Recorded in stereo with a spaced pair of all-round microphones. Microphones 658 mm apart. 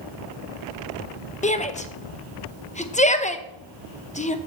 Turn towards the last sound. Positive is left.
turn(degrees=10)  # may be behind; listen again after turning